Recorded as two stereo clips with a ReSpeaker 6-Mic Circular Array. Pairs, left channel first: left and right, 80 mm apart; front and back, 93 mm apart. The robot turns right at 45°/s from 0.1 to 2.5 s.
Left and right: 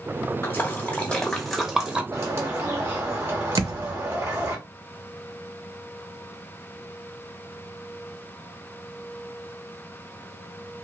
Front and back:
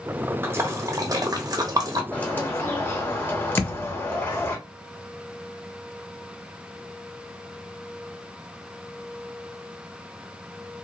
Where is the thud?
65° right, 0.5 m.